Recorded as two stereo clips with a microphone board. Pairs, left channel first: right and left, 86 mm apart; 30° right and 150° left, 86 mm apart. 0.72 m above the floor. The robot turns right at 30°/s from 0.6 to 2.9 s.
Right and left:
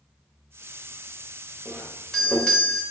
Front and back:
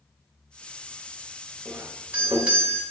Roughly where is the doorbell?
Behind.